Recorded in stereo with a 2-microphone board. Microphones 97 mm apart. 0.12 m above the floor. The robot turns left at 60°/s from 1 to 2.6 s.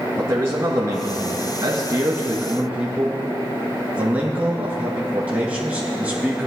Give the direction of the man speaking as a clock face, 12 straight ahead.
2 o'clock.